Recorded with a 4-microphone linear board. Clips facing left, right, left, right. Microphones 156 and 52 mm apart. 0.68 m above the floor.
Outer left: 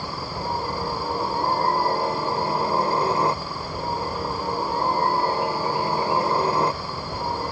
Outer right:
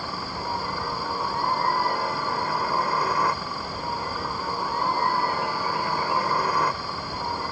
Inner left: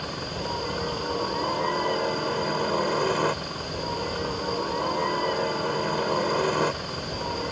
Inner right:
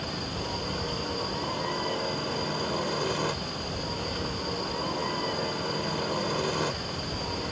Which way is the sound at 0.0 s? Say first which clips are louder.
Outer left 2 dB, inner left 2 dB; 25° left (ahead or behind).